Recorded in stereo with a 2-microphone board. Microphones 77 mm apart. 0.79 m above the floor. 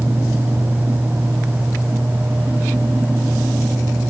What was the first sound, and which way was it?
Only background noise.